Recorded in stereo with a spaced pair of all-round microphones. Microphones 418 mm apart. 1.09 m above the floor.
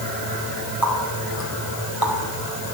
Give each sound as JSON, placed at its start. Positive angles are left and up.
{"t": 0.8, "sound": "a running tap", "side_deg": 55, "distance_m": 3.5}